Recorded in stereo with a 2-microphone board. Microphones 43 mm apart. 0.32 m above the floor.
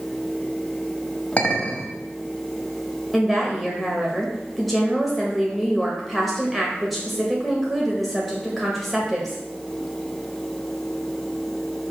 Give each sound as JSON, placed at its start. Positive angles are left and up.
{"t": 1.4, "sound": "a clink", "side_deg": 30, "distance_m": 1.2}
{"t": 3.1, "sound": "a woman speaking", "side_deg": 0, "distance_m": 1.3}